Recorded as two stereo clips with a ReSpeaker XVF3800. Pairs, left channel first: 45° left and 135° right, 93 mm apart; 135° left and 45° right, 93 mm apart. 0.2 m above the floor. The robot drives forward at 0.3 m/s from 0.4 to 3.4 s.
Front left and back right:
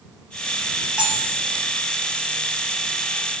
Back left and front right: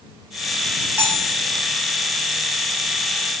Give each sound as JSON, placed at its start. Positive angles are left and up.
{"t": 1.0, "sound": "cutlery clinking", "azimuth_deg": -70, "distance_m": 0.8}